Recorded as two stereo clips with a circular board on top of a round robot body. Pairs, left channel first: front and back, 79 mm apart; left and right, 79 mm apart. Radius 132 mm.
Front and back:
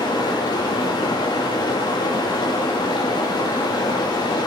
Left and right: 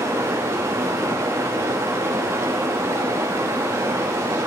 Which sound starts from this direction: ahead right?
Running water, at 0.0 s.